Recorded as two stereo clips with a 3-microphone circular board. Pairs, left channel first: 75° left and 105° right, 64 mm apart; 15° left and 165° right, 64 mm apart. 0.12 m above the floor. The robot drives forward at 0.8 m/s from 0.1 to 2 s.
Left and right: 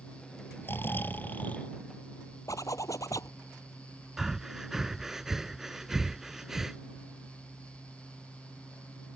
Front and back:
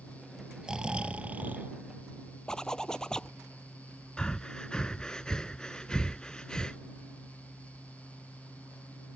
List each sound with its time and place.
0.6 s snoring: 120° left; by 1.7 s 140° left
2.5 s a zipper: 95° left
4.2 s breathing: 35° right